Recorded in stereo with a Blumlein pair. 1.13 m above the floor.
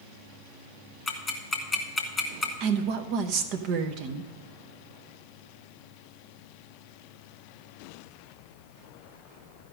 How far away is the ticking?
About 1.7 m.